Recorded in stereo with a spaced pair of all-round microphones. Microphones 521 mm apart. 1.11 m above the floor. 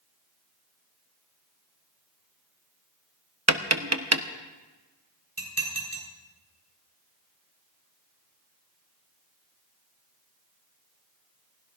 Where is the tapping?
30° right (ahead or behind), 0.8 m.